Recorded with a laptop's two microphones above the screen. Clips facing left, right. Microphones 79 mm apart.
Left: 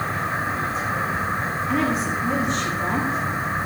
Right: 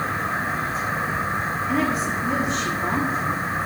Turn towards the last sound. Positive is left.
turn(degrees=0)  # may be behind; listen again after turning